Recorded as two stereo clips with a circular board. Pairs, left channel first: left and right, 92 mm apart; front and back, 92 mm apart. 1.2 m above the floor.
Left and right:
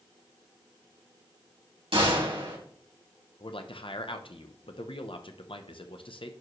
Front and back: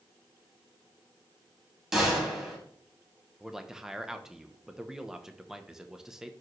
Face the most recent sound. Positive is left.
turn(degrees=95)